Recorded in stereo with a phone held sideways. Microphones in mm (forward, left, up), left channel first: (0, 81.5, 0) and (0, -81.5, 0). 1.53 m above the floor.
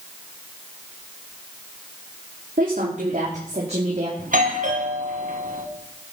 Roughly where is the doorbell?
Right.